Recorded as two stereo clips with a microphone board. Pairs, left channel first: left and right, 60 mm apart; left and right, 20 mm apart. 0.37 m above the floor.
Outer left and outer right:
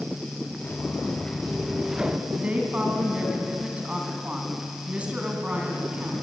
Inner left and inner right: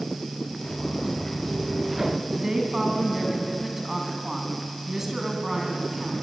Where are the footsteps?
25° left (ahead or behind), 2.5 m; by 2.2 s 15° right (ahead or behind), 1.7 m.